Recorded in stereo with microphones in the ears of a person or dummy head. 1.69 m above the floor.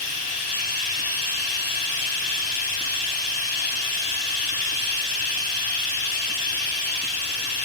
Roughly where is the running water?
Left.